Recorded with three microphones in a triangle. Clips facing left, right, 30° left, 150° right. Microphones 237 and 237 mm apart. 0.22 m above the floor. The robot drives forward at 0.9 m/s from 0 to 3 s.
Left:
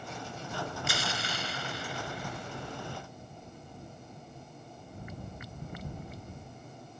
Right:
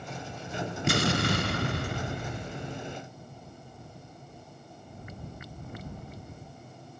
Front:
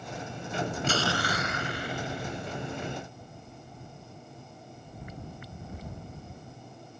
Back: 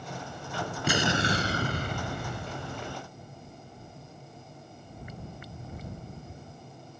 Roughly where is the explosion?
Right.